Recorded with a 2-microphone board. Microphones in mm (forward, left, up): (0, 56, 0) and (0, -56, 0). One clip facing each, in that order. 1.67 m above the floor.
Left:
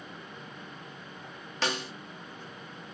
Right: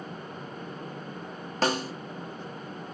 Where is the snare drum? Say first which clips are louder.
Right 6 dB; 40° right (ahead or behind), 1.3 m.